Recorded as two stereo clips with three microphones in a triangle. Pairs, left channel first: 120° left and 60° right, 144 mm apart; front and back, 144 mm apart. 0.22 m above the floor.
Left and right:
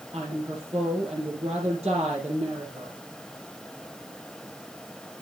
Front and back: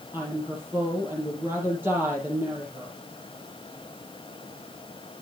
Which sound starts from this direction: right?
A woman speaking, at 0.1 s.